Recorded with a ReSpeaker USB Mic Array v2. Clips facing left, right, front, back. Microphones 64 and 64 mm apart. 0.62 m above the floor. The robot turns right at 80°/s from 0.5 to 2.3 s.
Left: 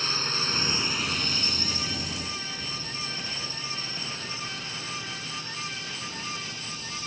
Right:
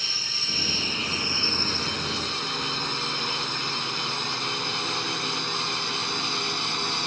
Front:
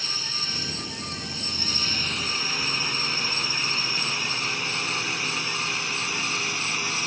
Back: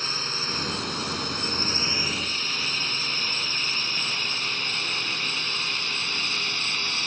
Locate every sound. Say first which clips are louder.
0.0 s a drone: left 5 dB, back 3 dB; 135° left; by 7.1 s 75° right